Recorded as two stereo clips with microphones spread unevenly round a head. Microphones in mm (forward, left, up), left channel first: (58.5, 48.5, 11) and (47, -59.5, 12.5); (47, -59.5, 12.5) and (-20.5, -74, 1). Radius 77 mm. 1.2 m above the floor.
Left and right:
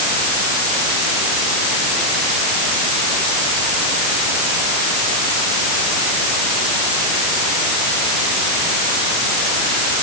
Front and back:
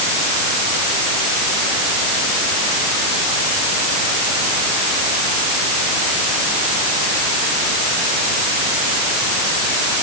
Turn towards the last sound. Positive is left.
No sound to turn to.